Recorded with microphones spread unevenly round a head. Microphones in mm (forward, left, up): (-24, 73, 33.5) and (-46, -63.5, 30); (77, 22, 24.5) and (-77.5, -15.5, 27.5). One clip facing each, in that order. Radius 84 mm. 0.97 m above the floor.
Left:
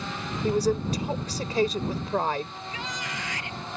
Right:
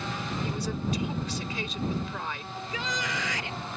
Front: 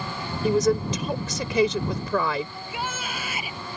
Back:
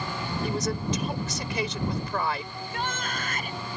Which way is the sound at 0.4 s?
20° left.